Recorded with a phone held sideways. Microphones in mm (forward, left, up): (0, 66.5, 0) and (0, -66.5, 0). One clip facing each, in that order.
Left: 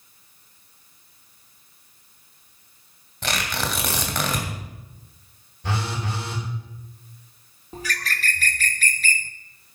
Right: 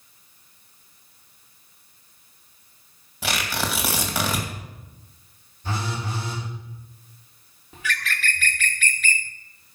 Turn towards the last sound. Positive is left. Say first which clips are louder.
# even
turn(degrees=35)  # may be behind; listen again after turning